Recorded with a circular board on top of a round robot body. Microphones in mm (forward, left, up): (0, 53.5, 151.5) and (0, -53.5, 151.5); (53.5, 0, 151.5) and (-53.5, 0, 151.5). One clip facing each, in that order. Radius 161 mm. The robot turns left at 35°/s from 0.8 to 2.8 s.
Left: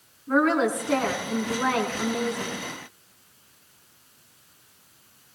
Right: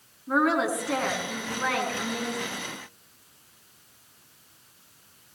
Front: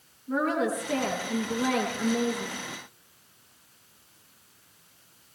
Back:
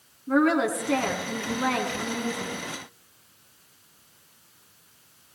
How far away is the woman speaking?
About 4.5 m.